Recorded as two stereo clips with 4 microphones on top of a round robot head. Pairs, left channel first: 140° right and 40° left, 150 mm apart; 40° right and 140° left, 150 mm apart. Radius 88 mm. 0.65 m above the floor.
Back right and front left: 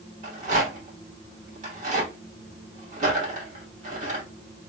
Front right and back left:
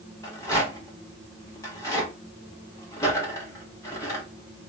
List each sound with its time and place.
0.2 s a rattle: 30° left, 1.5 m